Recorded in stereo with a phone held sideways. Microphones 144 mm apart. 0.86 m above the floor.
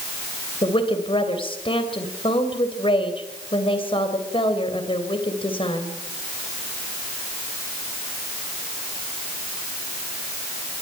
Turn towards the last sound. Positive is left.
turn(degrees=40)  # may be behind; listen again after turning